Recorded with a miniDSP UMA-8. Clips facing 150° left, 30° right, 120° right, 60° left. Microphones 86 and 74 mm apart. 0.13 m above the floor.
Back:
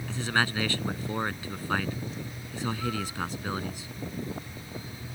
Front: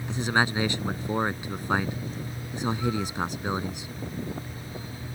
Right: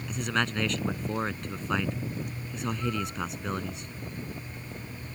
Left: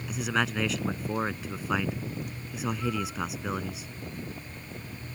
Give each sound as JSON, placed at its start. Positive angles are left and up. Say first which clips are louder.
{"t": 0.1, "sound": "a man speaking", "louder": "front 3 dB, left 1 dB", "azimuth_deg": -15}